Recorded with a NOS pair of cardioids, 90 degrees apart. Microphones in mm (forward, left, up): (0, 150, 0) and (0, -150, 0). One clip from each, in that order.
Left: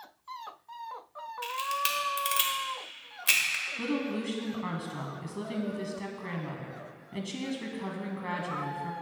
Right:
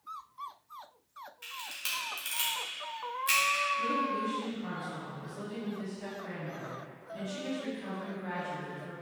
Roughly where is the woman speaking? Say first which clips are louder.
Right 3 dB; ahead left.